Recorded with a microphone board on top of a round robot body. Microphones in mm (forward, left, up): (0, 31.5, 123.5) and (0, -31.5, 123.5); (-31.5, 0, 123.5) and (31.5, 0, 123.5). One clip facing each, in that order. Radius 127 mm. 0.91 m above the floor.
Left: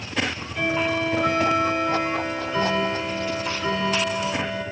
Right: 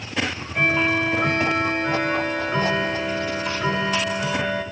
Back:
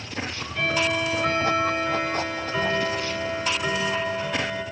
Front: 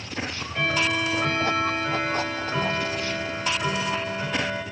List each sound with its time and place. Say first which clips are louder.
0.2 s ticking: right 3 dB, even; 50° right, 6.5 m